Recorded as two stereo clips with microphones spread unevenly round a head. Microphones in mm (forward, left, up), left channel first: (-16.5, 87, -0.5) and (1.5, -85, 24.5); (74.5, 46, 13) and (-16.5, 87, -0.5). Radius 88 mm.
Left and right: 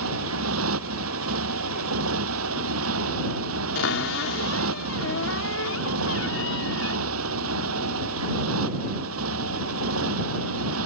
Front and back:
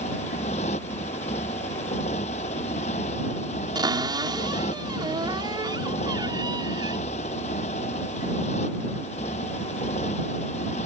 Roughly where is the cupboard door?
Left.